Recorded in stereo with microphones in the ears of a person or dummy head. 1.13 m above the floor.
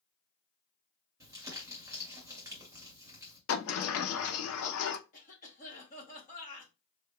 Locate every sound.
1.2 s crumpling: 20° right (ahead or behind), 1.6 m
3.5 s a sliding door: 80° left, 0.6 m
5.1 s a cough: 40° left (ahead or behind), 1.2 m